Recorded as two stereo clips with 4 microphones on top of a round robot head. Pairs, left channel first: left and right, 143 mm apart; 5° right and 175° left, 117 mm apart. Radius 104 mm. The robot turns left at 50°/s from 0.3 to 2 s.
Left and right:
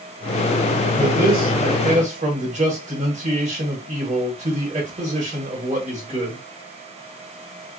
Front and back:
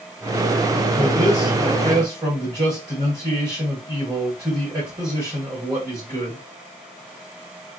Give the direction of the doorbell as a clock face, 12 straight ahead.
I don't hear a doorbell.